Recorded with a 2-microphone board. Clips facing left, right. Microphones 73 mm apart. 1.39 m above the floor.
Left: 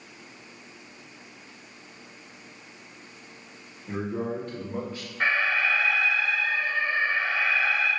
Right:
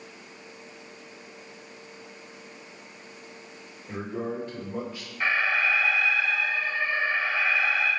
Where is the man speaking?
50° left (ahead or behind), 1.6 m.